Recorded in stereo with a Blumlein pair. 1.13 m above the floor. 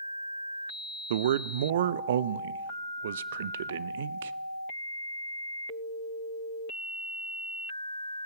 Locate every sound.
1.1 s a man speaking: 60° right, 0.5 m